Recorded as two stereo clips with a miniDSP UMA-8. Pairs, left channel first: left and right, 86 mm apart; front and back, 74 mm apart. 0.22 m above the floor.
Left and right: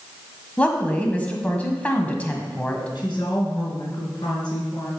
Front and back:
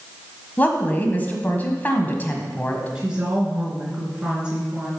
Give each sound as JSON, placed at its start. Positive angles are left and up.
{"t": 0.6, "sound": "a woman speaking", "azimuth_deg": 35, "distance_m": 1.5}
{"t": 3.0, "sound": "a woman speaking", "azimuth_deg": 105, "distance_m": 3.0}